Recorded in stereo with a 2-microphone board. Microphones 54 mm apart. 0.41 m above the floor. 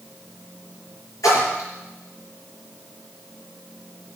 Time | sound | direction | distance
1.2 | a splash | 85° left | 5 m